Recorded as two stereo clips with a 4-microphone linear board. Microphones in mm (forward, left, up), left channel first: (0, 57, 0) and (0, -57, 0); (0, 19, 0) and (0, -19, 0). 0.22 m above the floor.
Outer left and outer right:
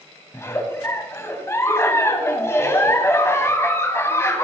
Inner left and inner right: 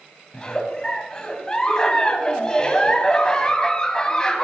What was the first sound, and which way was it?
A giggle, 25° left (ahead or behind).